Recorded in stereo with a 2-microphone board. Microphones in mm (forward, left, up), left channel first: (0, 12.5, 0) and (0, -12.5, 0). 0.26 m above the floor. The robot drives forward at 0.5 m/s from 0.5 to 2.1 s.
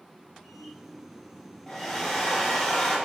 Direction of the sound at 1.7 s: 10° left (ahead or behind).